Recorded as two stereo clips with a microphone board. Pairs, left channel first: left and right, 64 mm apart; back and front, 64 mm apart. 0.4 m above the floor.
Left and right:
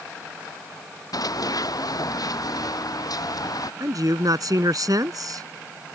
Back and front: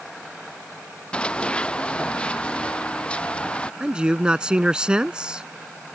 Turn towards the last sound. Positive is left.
turn(degrees=-75)